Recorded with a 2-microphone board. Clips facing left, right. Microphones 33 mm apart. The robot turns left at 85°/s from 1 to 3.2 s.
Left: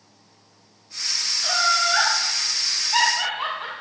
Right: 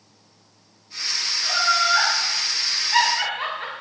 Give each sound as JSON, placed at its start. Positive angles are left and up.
{"t": 1.4, "sound": "laughter", "side_deg": 70, "distance_m": 3.5}